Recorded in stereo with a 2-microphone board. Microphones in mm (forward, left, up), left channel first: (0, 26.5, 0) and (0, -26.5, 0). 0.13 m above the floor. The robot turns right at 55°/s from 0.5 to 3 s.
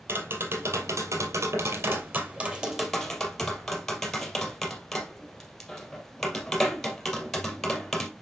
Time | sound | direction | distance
0.1 | tapping | 45° right (ahead or behind) | 2.5 m